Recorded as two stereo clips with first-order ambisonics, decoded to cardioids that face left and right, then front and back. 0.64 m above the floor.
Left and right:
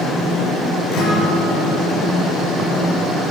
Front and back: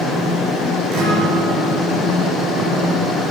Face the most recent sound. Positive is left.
turn(degrees=140)